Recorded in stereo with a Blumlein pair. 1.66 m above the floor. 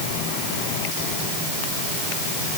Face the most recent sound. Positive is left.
No sound to turn to.